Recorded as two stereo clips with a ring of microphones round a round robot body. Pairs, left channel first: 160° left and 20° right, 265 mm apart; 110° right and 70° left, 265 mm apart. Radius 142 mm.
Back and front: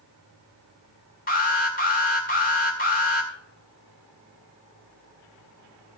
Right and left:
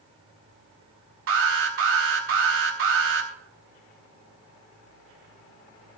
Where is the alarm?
100° left, 2 m.